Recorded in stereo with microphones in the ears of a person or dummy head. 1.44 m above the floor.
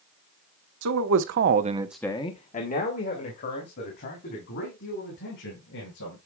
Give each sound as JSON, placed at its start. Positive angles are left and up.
{"t": 0.8, "sound": "a man speaking", "side_deg": -85, "distance_m": 1.4}